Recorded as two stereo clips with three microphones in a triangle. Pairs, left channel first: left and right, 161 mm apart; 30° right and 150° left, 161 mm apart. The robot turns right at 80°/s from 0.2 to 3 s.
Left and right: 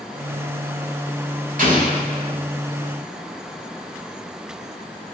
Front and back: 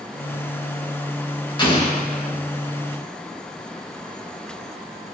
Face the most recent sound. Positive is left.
turn(degrees=25)